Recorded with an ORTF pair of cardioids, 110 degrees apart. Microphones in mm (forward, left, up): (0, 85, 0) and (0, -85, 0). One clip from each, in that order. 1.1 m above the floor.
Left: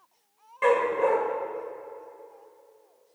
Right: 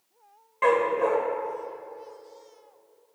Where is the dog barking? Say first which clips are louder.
Even; straight ahead, 2.0 m.